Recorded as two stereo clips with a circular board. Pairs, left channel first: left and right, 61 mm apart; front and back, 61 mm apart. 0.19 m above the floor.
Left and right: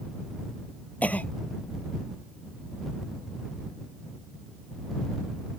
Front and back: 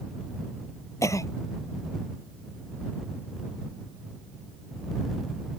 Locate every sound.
1.0 s a cough: 30° left